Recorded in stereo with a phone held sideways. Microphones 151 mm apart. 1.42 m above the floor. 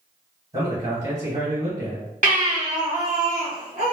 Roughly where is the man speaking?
Right.